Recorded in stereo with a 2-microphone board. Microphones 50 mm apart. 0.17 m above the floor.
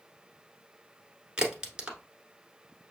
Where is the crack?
15° right (ahead or behind), 1.2 m.